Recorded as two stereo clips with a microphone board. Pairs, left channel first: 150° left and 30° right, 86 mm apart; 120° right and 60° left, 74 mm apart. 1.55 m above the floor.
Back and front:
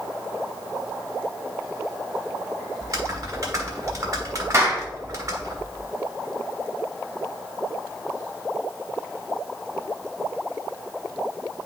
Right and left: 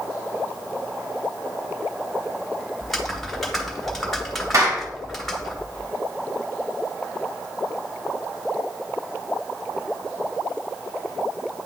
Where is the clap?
25° left, 1.6 m.